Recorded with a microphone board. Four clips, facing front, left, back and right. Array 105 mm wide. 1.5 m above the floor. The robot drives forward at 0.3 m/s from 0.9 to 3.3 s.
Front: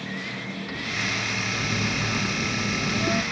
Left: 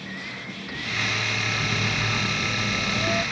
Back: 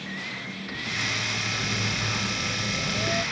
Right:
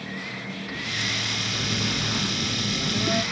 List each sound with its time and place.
1.6 s a phone buzzing: 30° right, 3 m; by 3.2 s 35° right, 2.5 m